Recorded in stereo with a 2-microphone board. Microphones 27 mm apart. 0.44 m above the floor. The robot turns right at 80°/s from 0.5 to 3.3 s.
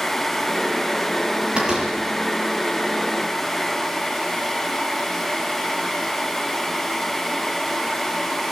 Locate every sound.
1.6 s a door slam: 40° right (ahead or behind), 8 m; by 1.9 s 15° right (ahead or behind), 8 m